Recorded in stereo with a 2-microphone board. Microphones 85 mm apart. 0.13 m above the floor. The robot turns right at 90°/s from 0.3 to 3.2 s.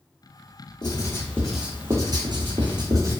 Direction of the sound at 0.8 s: 60° left (ahead or behind).